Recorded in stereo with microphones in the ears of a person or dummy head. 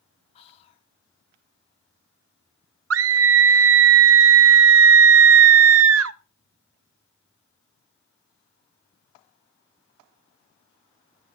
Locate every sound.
0.3 s whispering: 40° left (ahead or behind), 1.3 m
2.9 s a scream: 70° right (ahead or behind), 0.7 m